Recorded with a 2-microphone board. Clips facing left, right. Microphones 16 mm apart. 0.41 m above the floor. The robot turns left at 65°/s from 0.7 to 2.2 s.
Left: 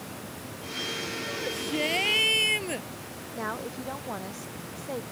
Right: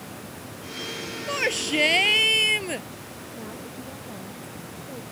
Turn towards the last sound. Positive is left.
turn(degrees=60)  # may be behind; listen again after turning